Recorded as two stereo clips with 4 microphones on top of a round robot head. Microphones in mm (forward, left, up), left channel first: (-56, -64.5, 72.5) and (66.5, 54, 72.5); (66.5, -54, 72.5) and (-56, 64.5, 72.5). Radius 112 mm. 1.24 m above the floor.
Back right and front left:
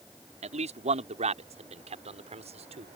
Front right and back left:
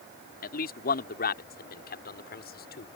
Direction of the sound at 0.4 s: 10° right.